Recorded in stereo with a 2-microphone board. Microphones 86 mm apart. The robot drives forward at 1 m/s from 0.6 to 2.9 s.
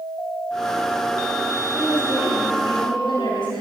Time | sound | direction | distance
1.7 | a woman speaking | 80° left | 4 m